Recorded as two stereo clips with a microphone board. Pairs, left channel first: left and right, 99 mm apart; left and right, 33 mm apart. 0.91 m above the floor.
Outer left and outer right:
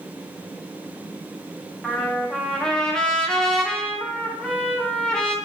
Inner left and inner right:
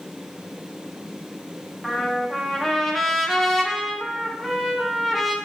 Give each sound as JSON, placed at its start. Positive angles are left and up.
{"t": 1.8, "sound": "a trumpet", "side_deg": 5, "distance_m": 0.5}